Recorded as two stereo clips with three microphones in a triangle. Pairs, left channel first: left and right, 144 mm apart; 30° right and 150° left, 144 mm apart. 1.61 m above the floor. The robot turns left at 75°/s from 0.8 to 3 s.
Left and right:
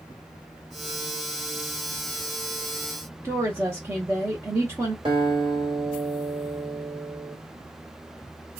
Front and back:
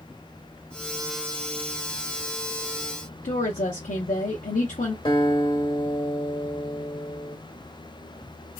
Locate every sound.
3.2 s a woman speaking: 15° right, 0.8 m
5.0 s a guitar: 65° right, 1.8 m